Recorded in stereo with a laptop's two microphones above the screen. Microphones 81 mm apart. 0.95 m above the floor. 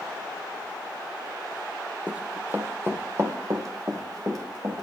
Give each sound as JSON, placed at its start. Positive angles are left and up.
{"t": 2.1, "sound": "running footsteps", "side_deg": -15, "distance_m": 1.6}